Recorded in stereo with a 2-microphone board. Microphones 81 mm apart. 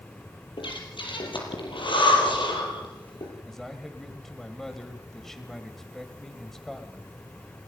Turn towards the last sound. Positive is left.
turn(degrees=5)  # may be behind; listen again after turning